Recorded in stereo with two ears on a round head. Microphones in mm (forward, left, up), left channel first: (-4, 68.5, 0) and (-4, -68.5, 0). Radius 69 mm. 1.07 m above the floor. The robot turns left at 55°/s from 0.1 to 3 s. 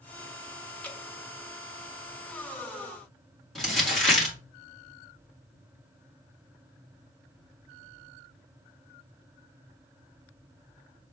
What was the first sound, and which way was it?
Dripping, 10° left (ahead or behind).